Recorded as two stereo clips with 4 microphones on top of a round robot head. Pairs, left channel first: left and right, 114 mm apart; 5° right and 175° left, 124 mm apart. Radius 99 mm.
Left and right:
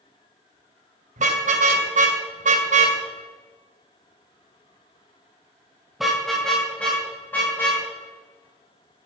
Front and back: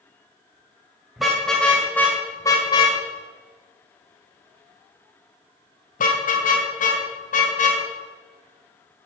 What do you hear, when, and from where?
1.2 s a car horn: 95° right, 2.5 m; by 7.8 s 15° left, 3.5 m